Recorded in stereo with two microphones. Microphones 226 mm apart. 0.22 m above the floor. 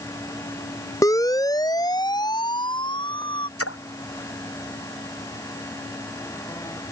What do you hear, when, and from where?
1.0 s a siren: 15° left (ahead or behind); by 3.5 s 20° left (ahead or behind)
3.6 s a splash: 85° left